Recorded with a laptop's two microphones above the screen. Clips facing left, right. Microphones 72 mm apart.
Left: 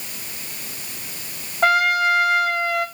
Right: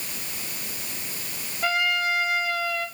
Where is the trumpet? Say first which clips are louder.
Left 8 dB; 60° left (ahead or behind), 0.8 m.